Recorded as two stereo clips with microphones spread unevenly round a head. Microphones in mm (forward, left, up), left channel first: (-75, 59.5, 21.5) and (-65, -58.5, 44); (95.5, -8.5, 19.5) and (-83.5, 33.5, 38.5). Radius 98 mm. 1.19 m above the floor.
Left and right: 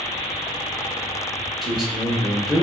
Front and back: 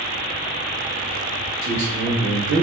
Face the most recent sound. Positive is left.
turn(degrees=-175)